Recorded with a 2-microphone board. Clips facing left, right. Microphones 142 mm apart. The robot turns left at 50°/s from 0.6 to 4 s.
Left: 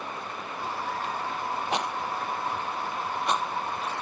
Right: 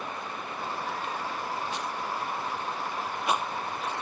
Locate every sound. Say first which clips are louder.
1.7 s a rattle: left 3 dB; 75° left (ahead or behind); by 3.4 s 15° right (ahead or behind)